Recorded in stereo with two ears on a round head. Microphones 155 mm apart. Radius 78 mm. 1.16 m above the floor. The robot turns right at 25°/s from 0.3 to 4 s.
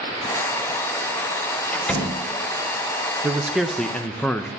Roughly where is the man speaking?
Centre.